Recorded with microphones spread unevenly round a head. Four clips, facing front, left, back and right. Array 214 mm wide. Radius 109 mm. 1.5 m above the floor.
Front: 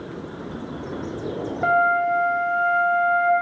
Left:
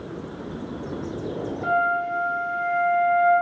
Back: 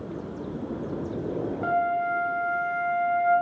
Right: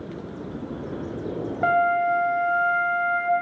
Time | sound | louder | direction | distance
1.6 | a flute | right 3 dB, front 7 dB | 40° right | 1.8 m